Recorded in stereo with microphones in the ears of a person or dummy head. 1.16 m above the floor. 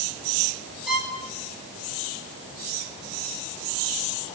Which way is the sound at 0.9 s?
5° right (ahead or behind).